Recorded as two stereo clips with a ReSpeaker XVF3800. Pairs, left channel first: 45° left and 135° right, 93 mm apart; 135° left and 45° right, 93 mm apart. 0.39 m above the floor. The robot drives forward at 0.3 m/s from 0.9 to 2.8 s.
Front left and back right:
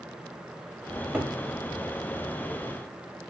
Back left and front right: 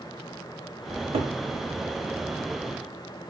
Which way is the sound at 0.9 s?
50° right.